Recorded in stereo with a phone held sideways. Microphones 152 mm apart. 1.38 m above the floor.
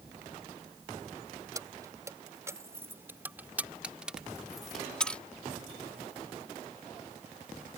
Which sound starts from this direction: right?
Keys jangling, at 1.6 s.